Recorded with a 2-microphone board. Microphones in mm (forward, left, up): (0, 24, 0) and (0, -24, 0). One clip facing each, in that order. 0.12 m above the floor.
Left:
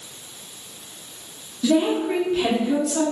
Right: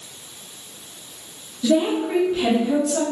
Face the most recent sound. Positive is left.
turn(degrees=-15)  # may be behind; listen again after turning